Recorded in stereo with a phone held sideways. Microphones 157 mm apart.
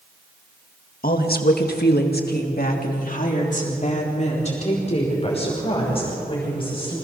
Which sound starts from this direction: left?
A woman speaking, at 1.0 s.